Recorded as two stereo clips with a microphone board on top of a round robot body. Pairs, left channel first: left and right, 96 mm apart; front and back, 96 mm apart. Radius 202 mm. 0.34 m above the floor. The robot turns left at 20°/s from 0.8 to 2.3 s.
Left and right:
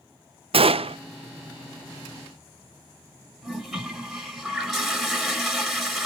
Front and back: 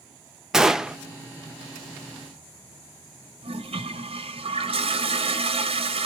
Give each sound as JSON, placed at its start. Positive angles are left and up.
{"t": 0.5, "sound": "a gunshot", "azimuth_deg": -95, "distance_m": 0.6}
{"t": 3.4, "sound": "a toilet flushing", "azimuth_deg": 180, "distance_m": 1.4}